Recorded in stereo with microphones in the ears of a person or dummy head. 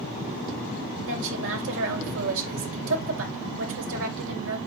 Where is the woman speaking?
70° right (ahead or behind), 3 m.